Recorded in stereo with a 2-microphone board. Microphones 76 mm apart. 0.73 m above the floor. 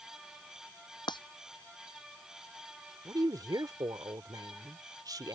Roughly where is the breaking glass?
Left.